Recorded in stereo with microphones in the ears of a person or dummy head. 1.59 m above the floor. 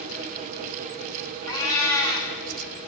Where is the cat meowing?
15° left (ahead or behind), 1.1 m.